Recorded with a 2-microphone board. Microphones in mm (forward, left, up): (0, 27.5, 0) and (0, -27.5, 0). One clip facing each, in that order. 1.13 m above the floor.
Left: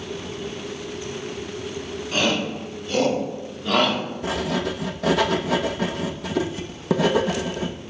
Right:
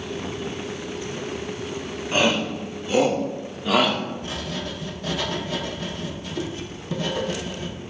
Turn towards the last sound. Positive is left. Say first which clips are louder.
# left 6 dB
turn(degrees=85)